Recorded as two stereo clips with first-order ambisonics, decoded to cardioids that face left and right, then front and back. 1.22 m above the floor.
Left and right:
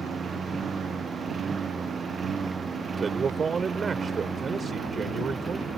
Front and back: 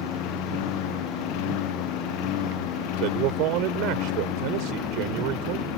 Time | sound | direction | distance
0.0 | a lawn mower | 20° right | ?
3.0 | a man speaking | 160° right | ?